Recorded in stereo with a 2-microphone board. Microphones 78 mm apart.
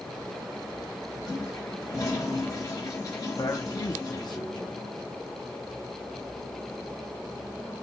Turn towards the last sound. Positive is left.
turn(degrees=60)  # may be behind; listen again after turning